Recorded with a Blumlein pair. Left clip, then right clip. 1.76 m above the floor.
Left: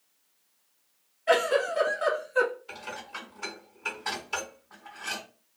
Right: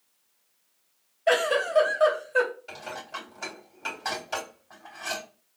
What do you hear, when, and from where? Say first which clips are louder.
1.3 s a giggle: right 1 dB; 45° right, 1.8 m
2.7 s dishes clattering: right 2 dB; 45° right, 2.5 m